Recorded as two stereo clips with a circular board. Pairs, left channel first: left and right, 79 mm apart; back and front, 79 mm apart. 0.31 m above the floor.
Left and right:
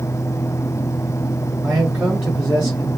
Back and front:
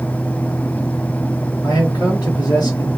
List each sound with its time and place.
1.6 s a man speaking: 155° right, 3 m